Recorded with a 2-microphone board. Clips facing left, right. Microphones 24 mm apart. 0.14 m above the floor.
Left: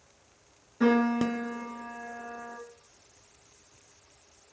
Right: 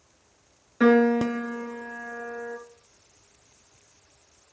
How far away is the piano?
About 0.8 m.